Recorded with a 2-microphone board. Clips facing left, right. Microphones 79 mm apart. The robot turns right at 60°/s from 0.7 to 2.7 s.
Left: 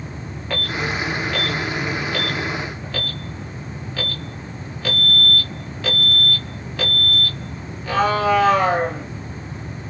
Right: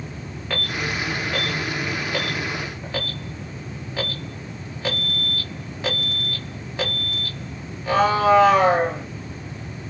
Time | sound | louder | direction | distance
0.5 | an alarm | left 2 dB | centre (ahead or behind) | 1.3 m